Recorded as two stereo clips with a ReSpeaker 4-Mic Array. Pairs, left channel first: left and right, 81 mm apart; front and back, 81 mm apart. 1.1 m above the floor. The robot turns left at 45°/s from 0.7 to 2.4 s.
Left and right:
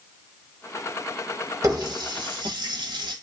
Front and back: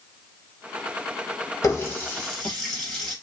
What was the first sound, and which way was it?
A running tap, 50° right.